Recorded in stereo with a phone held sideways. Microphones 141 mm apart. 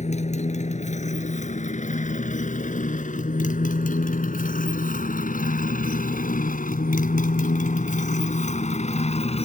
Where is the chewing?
I don't hear chewing.